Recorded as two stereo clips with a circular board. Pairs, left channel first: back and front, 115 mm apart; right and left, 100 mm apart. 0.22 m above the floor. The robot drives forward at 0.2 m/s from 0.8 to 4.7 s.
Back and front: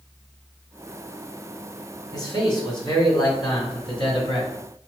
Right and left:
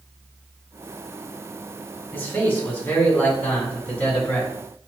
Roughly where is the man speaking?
Behind right.